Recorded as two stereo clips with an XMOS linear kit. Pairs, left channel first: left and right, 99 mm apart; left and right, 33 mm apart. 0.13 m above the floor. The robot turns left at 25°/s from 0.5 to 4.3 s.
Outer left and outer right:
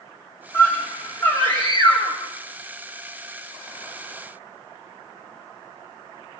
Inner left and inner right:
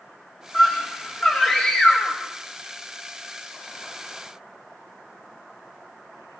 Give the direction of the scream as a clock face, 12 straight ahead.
7 o'clock.